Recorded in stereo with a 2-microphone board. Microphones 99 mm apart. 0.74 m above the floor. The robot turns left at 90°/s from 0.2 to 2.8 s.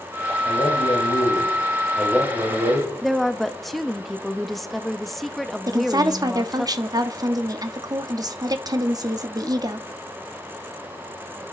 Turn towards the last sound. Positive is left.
turn(degrees=-45)  # may be behind; listen again after turning